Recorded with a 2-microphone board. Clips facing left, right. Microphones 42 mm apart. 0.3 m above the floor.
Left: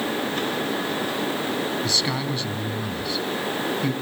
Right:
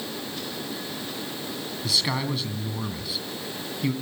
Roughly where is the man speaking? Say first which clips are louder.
Left 2 dB; centre.